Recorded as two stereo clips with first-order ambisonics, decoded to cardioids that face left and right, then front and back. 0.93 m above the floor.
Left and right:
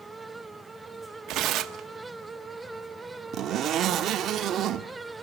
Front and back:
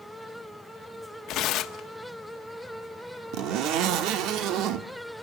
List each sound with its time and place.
1.3 s tearing paper: 45° right, 1.2 m
3.3 s a zipper: 145° right, 1.3 m